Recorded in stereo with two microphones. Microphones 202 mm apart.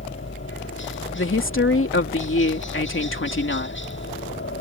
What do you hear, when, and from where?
0.0 s a helicopter: 70° left (ahead or behind)
1.1 s a woman speaking: 85° left